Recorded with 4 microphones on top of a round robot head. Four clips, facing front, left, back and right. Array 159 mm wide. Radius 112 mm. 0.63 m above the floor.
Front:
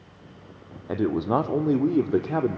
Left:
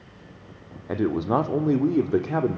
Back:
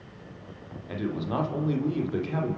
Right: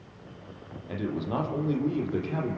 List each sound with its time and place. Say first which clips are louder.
0.9 s a man speaking: left 8 dB, front 7 dB; 45° left, 2 m